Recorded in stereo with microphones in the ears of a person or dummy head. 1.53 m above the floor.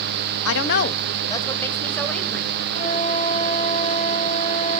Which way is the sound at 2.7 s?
35° left (ahead or behind).